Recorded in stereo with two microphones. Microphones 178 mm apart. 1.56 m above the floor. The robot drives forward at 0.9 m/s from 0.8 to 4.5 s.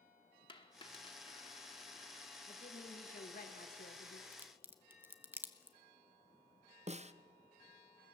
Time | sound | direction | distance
0.5 | a dropped coin | 30° left (ahead or behind) | 1.3 m
2.5 | a woman speaking | 35° left (ahead or behind) | 2 m
4.3 | a crack | 10° right (ahead or behind) | 1.1 m
6.9 | a snare drum | 40° right (ahead or behind) | 0.6 m